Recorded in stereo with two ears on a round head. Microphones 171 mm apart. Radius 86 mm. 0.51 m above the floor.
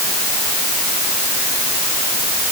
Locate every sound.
Only background noise.